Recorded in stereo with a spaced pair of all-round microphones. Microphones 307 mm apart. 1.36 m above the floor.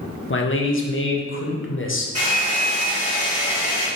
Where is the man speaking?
45° left (ahead or behind), 0.6 m.